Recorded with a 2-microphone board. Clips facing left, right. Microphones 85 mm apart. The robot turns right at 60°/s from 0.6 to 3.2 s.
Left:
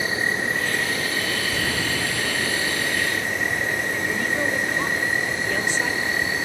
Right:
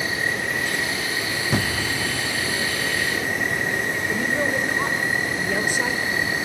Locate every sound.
0.0 s an insect: 30° left, 8 m; by 6.5 s 175° right, 8 m
1.5 s a thud: 85° right, 3.5 m; by 2.1 s 50° right (ahead or behind), 3.5 m
4.1 s a woman speaking: 10° right (ahead or behind), 1.7 m